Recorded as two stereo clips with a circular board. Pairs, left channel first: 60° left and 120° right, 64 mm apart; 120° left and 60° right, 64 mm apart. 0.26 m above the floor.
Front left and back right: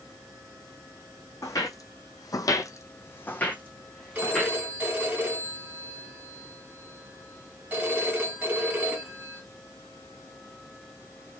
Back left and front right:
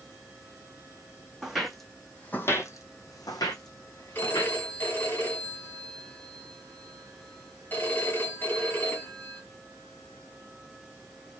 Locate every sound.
1.4 s footsteps: 25° left, 0.7 m; by 4.6 s 145° left, 1.2 m
4.2 s a phone ringing: straight behind, 1.6 m